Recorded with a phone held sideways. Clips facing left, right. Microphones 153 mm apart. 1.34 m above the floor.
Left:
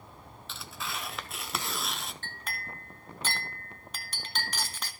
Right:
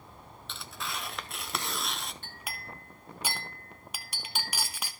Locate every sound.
0.5 s tearing paper: centre (ahead or behind), 0.7 m
2.2 s a clink: 10° right (ahead or behind), 1.0 m